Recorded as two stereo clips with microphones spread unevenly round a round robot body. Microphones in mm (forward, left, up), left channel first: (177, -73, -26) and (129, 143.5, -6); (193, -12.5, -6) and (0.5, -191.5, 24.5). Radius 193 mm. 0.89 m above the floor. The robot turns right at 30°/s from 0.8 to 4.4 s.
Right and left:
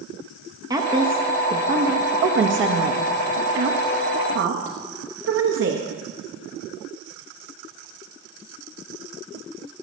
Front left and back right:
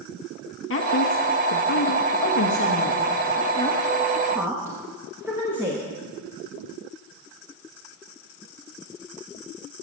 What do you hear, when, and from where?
0.7 s a woman speaking: 25° left, 1.1 m; by 5.9 s 135° left, 1.1 m